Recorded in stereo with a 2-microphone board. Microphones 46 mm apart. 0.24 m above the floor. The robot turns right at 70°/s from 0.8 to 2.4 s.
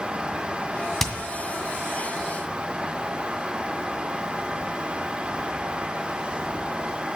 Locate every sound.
1.0 s hammering: 10° left (ahead or behind), 1.9 m; by 1.1 s 15° left (ahead or behind), 1.9 m